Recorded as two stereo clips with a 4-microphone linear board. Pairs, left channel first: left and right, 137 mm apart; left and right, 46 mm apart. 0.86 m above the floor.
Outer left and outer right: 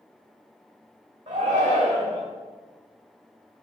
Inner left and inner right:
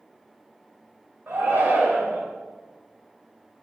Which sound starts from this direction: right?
A shout, at 1.3 s.